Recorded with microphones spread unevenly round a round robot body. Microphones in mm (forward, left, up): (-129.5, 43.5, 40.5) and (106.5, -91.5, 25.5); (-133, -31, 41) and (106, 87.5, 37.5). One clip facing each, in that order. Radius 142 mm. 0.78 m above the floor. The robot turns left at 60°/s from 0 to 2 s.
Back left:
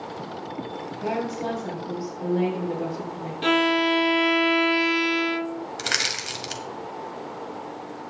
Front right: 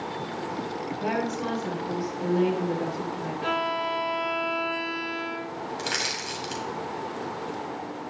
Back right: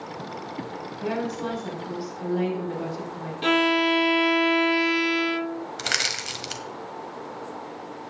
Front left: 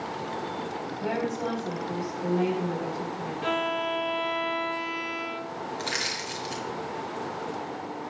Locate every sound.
1.0 s a woman speaking: 70° right, 6 m; by 3.3 s 130° right, 6 m
3.4 s a violin: straight behind, 0.6 m
5.8 s crushing: 155° right, 1.7 m